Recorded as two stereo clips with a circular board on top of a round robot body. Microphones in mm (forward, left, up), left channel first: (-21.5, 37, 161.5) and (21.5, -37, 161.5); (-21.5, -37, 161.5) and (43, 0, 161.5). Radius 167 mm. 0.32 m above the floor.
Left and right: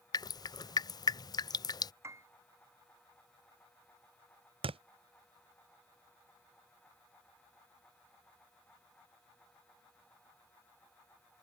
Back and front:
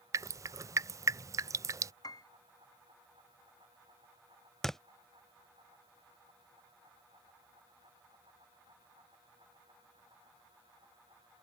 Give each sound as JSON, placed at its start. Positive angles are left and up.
{"t": 0.1, "sound": "dripping", "azimuth_deg": 75}
{"t": 2.0, "sound": "a piano", "azimuth_deg": -120}
{"t": 4.6, "sound": "a thud", "azimuth_deg": -65}